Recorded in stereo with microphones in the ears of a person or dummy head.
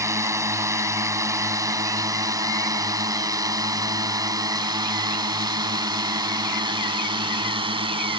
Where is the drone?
15° right (ahead or behind); by 8.2 s 25° right (ahead or behind).